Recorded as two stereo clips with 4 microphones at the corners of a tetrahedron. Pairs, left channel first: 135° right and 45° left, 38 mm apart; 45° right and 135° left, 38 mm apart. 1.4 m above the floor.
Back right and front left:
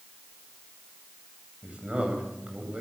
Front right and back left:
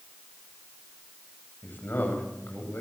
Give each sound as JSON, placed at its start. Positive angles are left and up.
{"t": 1.6, "sound": "a man speaking", "azimuth_deg": -15, "distance_m": 9.5}